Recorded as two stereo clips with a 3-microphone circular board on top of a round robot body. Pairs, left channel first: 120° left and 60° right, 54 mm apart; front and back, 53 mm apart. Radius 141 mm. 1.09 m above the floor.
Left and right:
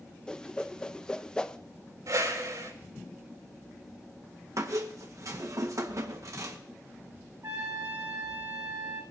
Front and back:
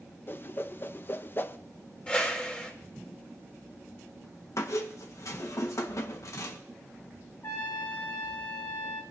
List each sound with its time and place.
0.3 s a whoosh: 45° left, 0.7 m
2.1 s a whoosh: 70° right, 3 m
4.6 s a squeak: 35° right, 1.2 m
7.4 s a trumpet: 30° right, 2 m